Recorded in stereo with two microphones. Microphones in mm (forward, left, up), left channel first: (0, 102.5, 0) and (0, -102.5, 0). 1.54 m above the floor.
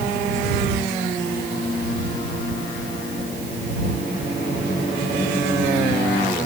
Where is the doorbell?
No doorbell in this recording.